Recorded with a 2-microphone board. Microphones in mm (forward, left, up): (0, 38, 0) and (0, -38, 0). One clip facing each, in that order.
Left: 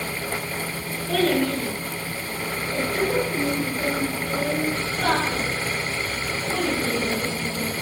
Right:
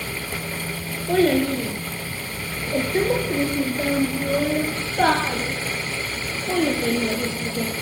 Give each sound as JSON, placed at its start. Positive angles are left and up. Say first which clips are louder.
{"t": 1.1, "sound": "a child speaking", "louder": "right 3 dB", "side_deg": -25, "distance_m": 7.0}